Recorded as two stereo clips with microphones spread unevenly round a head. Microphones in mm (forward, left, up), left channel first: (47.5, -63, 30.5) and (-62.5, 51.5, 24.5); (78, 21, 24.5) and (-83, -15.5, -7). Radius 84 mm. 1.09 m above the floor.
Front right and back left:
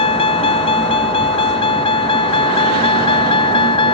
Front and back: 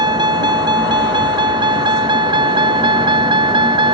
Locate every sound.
0.0 s a vehicle: 100° right; by 3.9 s 105° right